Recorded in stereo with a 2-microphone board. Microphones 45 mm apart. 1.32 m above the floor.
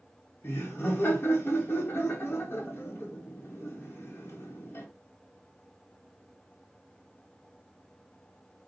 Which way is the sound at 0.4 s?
55° left (ahead or behind).